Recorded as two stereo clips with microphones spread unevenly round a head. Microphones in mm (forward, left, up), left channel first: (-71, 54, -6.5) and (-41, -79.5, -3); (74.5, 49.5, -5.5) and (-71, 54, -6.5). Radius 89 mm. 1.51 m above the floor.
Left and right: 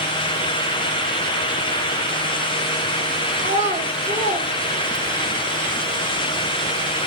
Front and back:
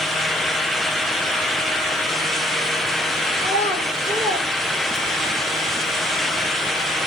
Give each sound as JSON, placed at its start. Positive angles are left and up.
{"t": 3.4, "sound": "a child speaking", "azimuth_deg": -100, "distance_m": 1.8}